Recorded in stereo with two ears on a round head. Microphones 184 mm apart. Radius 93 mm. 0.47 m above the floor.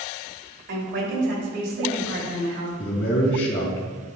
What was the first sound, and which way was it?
A woman speaking, 60° right (ahead or behind).